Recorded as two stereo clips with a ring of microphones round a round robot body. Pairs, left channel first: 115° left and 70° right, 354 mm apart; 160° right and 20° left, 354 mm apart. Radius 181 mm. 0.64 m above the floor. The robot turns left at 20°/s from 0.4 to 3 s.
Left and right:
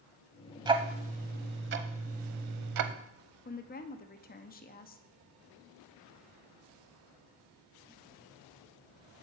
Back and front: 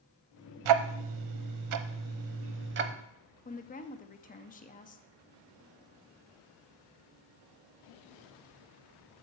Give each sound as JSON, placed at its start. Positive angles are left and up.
{"t": 0.7, "sound": "ticking", "azimuth_deg": 10, "distance_m": 0.7}
{"t": 3.5, "sound": "a woman speaking", "azimuth_deg": 155, "distance_m": 0.8}